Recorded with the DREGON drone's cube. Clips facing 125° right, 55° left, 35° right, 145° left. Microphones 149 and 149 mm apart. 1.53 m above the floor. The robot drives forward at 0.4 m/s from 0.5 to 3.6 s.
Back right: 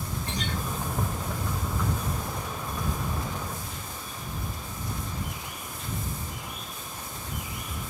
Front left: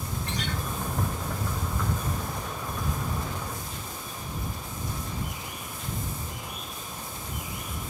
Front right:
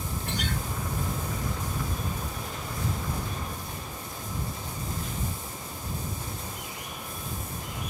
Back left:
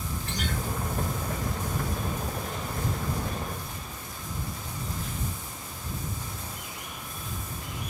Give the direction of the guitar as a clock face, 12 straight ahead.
2 o'clock.